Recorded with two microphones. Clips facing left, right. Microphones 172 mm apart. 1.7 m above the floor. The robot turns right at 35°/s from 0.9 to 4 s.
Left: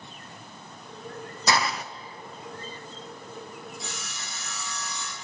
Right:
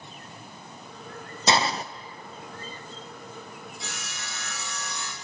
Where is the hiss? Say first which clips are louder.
Right 2 dB; 25° right (ahead or behind), 0.5 m; by 1.8 s 35° right (ahead or behind), 0.5 m.